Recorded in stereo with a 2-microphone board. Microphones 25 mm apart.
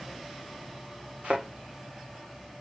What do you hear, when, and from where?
1.2 s a thud: 45° right (ahead or behind), 2 m